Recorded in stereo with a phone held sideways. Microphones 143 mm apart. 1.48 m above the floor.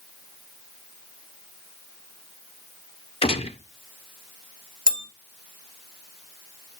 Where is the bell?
60° right (ahead or behind), 2 m.